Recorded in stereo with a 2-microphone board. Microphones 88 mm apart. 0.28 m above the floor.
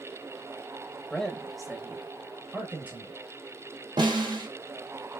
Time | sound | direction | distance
1.1 | a man speaking | 10° left (ahead or behind) | 0.9 m
4.0 | a snare drum | 55° right (ahead or behind) | 2 m